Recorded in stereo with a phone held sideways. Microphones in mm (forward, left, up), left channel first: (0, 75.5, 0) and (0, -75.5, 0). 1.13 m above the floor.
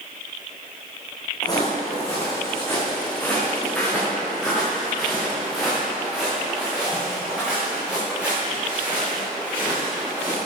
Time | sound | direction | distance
1.4 | footsteps | 25° left (ahead or behind) | 3.5 m